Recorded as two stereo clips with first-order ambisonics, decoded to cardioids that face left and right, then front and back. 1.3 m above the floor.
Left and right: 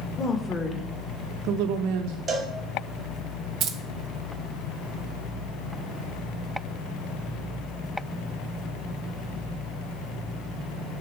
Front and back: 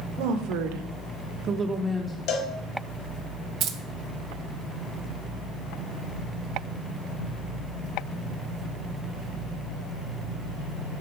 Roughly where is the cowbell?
Ahead right.